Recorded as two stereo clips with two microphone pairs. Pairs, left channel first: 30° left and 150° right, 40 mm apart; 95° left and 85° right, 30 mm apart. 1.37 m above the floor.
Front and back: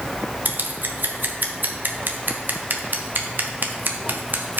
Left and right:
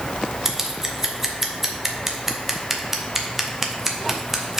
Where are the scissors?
160° right, 0.8 m.